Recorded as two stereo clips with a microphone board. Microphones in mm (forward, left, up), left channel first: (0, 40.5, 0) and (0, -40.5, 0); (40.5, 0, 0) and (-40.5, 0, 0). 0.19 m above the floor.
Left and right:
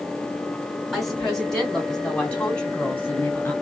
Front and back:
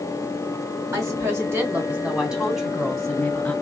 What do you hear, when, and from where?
0.9 s a woman speaking: 175° left, 2 m; by 3.5 s 50° left, 1.8 m